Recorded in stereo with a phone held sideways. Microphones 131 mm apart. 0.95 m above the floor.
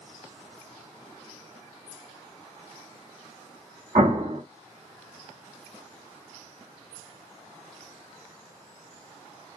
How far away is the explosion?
About 1.4 m.